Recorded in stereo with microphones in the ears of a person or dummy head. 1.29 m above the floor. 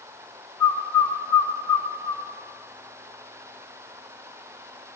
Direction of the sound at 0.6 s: 20° left (ahead or behind).